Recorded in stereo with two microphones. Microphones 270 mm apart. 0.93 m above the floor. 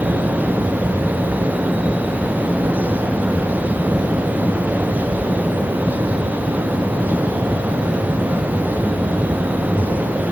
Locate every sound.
Only background noise.